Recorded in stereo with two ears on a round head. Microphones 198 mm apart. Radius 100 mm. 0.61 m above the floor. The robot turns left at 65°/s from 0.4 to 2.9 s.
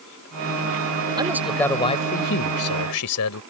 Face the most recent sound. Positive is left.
turn(degrees=90)